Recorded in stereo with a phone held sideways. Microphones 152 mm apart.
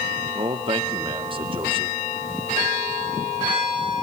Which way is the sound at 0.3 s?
35° right (ahead or behind).